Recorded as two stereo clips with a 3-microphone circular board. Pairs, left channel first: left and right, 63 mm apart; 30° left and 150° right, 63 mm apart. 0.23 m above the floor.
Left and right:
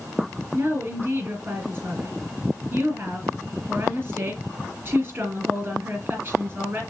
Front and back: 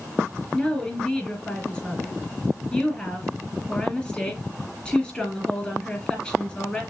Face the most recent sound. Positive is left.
turn(degrees=-35)